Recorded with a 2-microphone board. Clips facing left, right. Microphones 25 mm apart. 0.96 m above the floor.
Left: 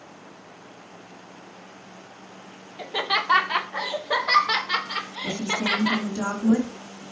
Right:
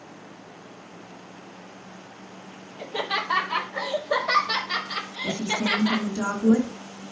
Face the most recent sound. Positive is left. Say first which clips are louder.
# even
turn(degrees=25)  # may be behind; listen again after turning